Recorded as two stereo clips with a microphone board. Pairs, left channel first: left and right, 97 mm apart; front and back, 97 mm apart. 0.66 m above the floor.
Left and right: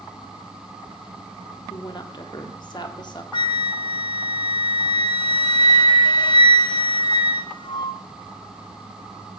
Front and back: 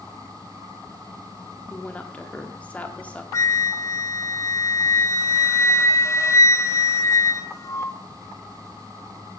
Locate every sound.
1.7 s a woman speaking: 75° left, 1.7 m
3.3 s a flute: 60° left, 0.7 m